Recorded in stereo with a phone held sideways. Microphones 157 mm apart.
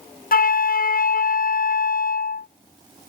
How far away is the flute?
About 0.5 m.